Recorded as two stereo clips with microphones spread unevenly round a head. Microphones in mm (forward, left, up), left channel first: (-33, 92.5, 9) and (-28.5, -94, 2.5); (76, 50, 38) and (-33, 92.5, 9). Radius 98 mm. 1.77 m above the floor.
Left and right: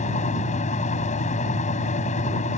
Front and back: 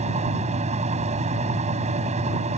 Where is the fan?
140° left.